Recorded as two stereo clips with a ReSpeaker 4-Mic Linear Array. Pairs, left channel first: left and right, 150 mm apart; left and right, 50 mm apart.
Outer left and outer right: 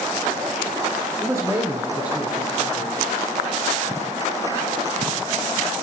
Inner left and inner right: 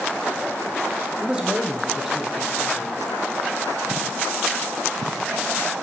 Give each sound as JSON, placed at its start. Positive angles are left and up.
{"t": 1.2, "sound": "a man speaking", "side_deg": -20, "distance_m": 1.2}